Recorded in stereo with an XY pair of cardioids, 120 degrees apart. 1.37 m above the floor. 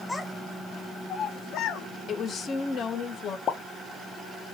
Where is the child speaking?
15° left, 1.1 m; by 1.9 s 80° left, 0.7 m.